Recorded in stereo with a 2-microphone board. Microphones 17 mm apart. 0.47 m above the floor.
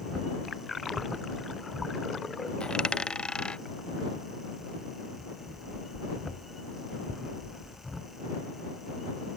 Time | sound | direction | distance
2.6 | a dropped coin | 65° left (ahead or behind) | ?